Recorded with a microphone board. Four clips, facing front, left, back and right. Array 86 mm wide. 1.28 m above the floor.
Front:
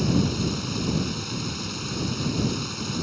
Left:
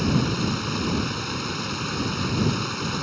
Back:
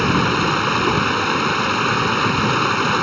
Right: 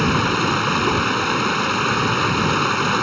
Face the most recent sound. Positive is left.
turn(degrees=-145)